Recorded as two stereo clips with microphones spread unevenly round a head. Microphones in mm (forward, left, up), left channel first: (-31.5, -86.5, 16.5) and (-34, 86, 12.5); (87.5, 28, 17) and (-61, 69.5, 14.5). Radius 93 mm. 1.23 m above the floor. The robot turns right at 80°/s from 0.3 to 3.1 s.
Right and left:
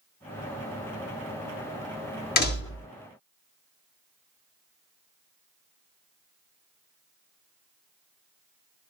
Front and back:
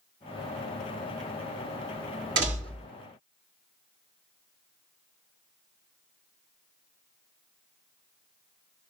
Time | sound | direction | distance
2.4 | a door slam | 125° right | 1.8 m